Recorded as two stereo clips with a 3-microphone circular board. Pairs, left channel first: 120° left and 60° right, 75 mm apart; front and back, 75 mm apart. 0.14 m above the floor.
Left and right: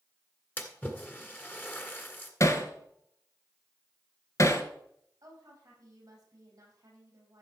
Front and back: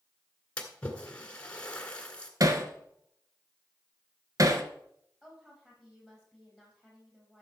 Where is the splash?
65° left, 1.6 m.